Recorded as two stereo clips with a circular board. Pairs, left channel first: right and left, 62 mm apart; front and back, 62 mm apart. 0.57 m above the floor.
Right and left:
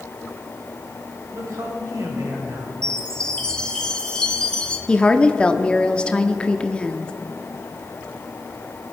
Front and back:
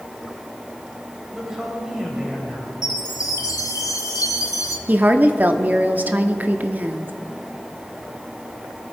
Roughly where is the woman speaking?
Behind right.